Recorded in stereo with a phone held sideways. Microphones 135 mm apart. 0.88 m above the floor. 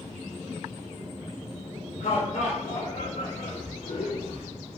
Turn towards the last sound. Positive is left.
turn(degrees=65)  # may be behind; listen again after turning